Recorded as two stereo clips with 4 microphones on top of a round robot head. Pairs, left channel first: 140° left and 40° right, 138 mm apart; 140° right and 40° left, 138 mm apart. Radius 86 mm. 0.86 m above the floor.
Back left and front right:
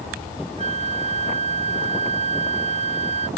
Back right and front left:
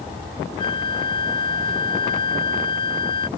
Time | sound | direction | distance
0.6 | a flute | 85° right | ?